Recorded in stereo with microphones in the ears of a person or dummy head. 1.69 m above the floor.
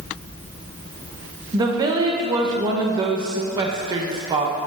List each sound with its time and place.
1.5 s a woman speaking: 30° right (ahead or behind), 1.3 m